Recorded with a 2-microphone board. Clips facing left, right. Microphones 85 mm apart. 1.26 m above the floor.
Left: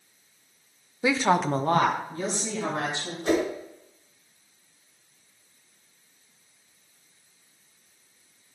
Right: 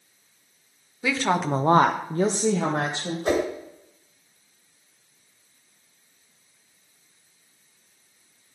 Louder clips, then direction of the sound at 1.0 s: Left 1 dB; 25° left (ahead or behind).